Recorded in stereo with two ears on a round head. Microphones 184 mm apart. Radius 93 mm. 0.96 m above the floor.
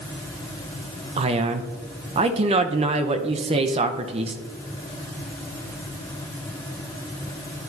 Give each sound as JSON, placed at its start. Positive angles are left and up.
{"t": 1.2, "sound": "a man speaking", "side_deg": -30, "distance_m": 0.6}